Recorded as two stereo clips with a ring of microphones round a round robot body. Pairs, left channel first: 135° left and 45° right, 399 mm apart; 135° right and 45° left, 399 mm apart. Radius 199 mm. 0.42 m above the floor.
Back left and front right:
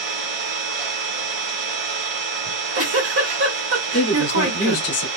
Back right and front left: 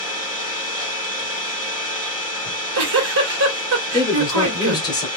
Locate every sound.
0.0 s an engine running: 35° right, 3 m
2.4 s a giggle: 5° left, 2 m
3.9 s a woman speaking: 155° left, 1.2 m